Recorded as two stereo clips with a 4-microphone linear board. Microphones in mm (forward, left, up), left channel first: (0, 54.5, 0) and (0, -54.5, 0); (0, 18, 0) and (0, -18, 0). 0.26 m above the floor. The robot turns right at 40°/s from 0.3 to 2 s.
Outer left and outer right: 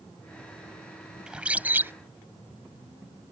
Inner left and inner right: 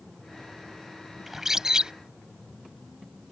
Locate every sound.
1.3 s a bird: 10° right (ahead or behind); by 1.9 s 25° right (ahead or behind)